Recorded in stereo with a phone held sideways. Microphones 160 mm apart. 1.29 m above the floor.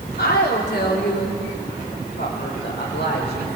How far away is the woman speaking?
About 3.5 m.